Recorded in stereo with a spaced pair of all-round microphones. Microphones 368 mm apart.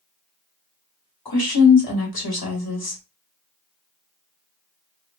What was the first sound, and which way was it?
A woman speaking, 80° left.